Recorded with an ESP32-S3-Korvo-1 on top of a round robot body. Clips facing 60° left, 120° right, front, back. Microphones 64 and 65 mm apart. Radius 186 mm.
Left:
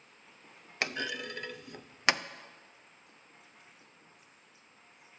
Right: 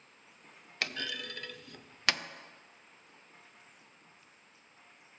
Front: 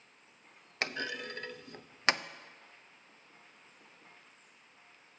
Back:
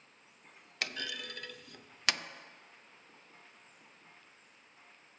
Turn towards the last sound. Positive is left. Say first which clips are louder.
# left 3 dB, front 3 dB
turn(degrees=15)